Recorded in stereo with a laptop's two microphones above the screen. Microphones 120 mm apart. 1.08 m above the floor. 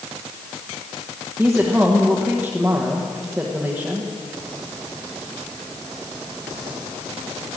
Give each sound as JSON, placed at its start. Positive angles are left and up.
{"t": 1.4, "sound": "a woman speaking", "side_deg": -10, "distance_m": 1.0}